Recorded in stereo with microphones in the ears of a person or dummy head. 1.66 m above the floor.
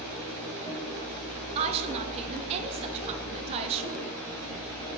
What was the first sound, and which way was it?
A woman speaking, 30° right (ahead or behind).